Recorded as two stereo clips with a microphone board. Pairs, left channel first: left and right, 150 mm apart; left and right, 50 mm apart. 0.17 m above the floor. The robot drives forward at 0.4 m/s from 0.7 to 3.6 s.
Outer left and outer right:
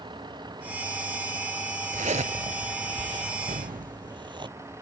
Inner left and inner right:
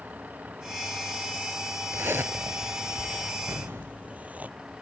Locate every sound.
0.0 s a vehicle: 30° right (ahead or behind); by 4.8 s 20° right (ahead or behind)
1.9 s a zipper: 55° right (ahead or behind); by 4.5 s 30° right (ahead or behind)
3.5 s an explosion: 70° right (ahead or behind)